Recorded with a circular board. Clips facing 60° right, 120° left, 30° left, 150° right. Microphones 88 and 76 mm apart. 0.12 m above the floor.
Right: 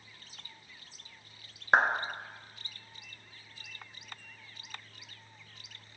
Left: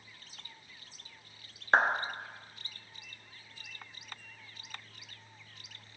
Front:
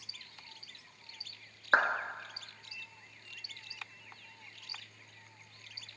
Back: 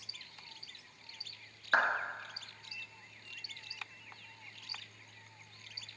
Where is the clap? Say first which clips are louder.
Right 1 dB, front 2 dB; straight ahead, 1.0 m.